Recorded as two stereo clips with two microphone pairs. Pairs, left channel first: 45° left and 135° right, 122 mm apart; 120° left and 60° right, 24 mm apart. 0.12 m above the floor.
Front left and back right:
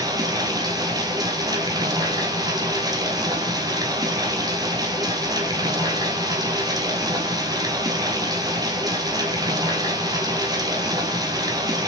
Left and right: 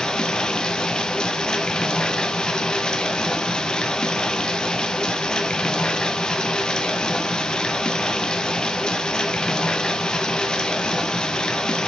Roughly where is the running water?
Behind.